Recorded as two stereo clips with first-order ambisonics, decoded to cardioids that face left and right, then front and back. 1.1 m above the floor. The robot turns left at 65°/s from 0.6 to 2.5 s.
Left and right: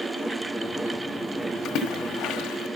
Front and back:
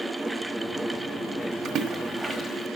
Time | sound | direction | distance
1.6 | a splash | 135° left | 1.3 m